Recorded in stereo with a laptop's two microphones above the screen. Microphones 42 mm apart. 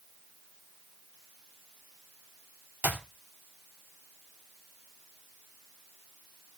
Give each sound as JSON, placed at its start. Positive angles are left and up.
{"t": 2.8, "sound": "a clap", "side_deg": -45, "distance_m": 2.0}